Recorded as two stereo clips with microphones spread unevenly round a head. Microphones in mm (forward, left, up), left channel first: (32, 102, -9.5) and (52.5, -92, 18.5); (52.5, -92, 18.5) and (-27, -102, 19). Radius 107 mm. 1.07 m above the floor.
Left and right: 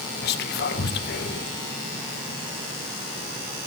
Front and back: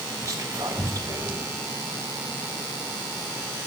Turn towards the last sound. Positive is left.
turn(degrees=130)